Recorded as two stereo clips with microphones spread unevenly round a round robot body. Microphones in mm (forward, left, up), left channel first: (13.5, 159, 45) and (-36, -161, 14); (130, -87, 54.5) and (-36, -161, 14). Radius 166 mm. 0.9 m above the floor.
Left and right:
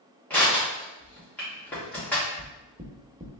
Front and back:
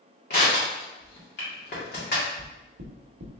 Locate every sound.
0.3 s crushing: 5° right, 2.0 m
2.4 s knocking: 175° right, 0.7 m